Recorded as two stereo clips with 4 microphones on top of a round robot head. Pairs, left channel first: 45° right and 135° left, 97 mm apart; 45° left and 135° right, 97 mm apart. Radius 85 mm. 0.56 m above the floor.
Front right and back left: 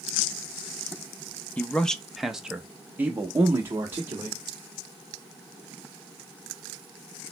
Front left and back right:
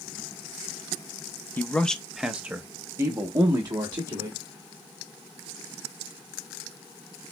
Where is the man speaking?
5° left, 0.7 m; by 4.4 s 165° right, 1.4 m.